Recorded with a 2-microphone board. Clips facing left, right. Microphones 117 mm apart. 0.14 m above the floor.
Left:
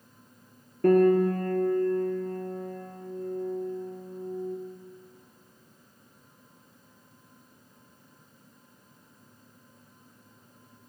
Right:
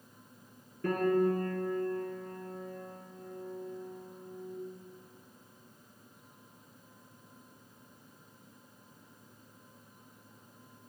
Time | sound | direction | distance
0.8 | a piano | 60° left (ahead or behind) | 0.6 m